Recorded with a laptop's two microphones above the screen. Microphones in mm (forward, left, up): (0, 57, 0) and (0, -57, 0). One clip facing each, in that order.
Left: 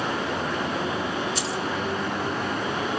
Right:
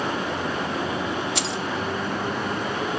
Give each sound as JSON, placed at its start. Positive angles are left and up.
{"t": 1.4, "sound": "keys jangling", "side_deg": -65, "distance_m": 0.8}